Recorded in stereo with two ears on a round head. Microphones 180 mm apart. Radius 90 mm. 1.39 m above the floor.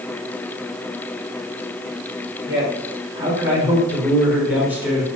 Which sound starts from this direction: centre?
A man speaking, at 2.5 s.